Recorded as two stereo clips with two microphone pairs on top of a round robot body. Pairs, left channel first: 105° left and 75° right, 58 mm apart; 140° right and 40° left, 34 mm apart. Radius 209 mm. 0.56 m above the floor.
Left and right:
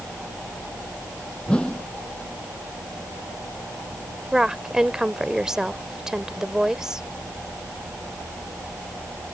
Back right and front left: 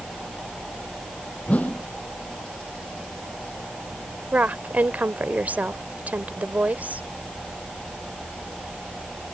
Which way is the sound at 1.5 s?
175° left.